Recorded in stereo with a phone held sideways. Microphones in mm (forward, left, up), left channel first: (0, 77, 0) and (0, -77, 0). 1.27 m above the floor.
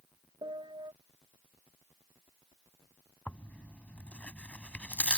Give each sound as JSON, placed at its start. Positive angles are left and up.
{"t": 0.4, "sound": "a piano", "side_deg": -35}
{"t": 3.3, "sound": "tearing paper", "side_deg": 10}